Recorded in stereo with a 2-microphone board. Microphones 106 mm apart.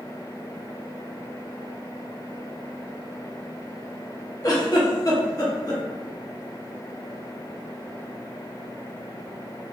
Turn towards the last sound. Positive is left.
turn(degrees=40)  # may be behind; listen again after turning